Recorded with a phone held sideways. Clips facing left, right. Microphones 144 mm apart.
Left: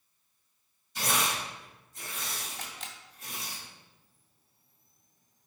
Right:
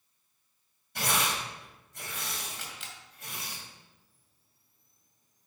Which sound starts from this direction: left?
A camera shutter, at 2.6 s.